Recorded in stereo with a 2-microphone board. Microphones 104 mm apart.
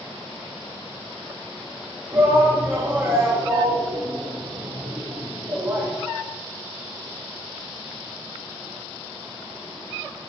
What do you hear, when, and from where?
2.1 s a shout: 25° right (ahead or behind), 1.2 m